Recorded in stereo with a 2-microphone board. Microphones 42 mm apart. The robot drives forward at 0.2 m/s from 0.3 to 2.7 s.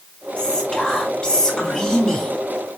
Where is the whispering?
20° left (ahead or behind), 1.2 m.